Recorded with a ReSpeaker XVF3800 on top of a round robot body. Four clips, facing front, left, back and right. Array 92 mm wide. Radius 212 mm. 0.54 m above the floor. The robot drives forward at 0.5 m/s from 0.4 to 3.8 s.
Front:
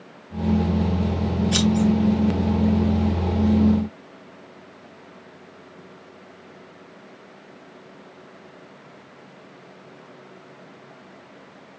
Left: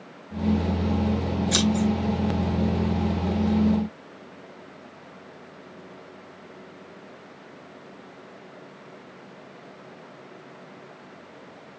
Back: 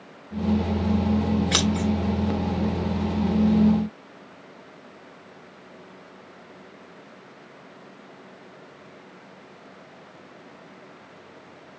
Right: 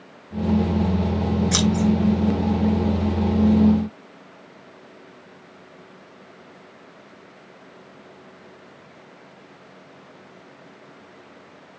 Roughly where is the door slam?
No door slam in this recording.